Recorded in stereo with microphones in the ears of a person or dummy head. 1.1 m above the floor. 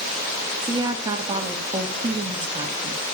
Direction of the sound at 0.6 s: 20° right (ahead or behind).